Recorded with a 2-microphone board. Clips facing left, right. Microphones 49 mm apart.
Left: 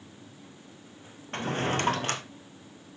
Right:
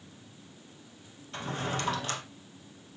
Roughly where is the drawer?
Left.